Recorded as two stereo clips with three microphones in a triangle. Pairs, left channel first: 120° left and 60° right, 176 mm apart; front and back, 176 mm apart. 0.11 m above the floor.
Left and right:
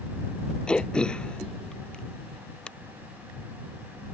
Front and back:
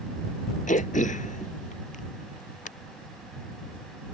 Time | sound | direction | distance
0.7 | throat clearing | 35° left | ?